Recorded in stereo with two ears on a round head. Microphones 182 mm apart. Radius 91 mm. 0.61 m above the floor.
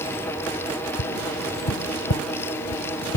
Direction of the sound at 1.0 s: 75° left (ahead or behind).